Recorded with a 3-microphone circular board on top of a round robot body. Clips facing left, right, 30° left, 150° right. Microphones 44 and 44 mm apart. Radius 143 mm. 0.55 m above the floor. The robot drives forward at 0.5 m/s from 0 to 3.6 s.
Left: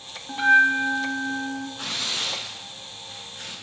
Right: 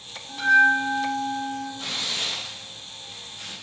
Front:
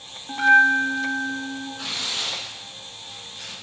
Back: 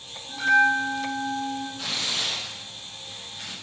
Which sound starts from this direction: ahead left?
A bell, at 0.3 s.